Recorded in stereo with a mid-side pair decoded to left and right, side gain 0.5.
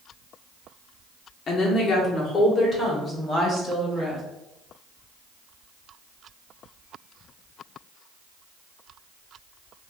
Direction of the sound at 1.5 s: 45° left.